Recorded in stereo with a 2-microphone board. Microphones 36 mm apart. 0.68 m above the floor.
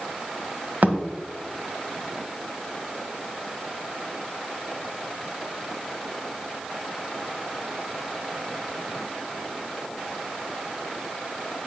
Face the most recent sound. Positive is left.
turn(degrees=-50)  # may be behind; listen again after turning